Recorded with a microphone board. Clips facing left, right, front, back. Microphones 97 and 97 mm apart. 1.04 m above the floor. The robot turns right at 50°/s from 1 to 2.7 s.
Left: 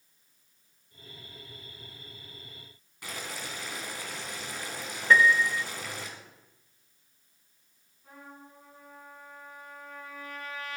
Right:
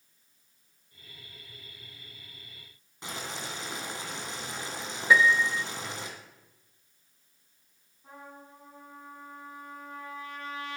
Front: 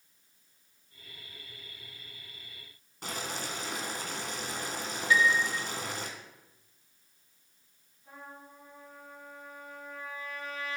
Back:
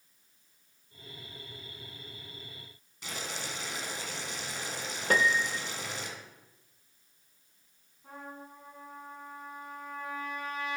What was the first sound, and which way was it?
Boiling, 30° right.